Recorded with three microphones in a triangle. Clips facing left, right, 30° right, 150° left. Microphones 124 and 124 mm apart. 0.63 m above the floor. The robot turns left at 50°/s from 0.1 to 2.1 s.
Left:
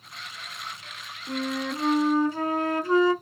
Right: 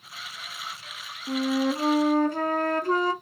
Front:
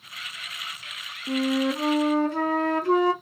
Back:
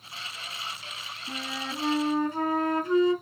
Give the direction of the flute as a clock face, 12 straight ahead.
12 o'clock.